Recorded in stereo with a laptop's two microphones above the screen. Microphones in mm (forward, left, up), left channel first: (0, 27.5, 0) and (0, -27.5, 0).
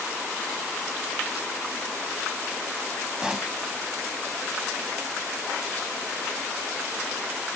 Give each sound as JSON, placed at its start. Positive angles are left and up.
{"t": 3.2, "sound": "a pop", "side_deg": -10}